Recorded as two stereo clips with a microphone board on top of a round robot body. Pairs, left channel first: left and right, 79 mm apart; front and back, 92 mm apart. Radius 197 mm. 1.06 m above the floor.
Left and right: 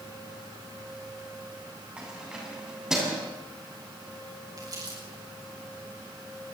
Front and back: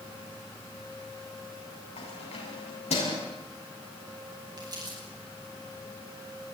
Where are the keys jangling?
10° right, 7.5 m; by 3.2 s 5° right, 7 m.